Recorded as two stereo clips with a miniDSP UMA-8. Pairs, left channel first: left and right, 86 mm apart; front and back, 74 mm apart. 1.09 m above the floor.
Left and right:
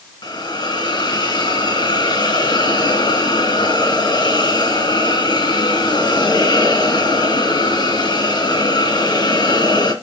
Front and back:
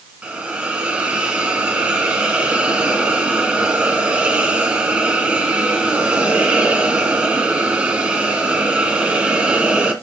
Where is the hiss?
110° left, 2 m.